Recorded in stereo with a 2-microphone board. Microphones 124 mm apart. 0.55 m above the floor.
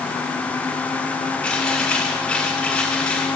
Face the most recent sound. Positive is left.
turn(degrees=10)  # may be behind; listen again after turning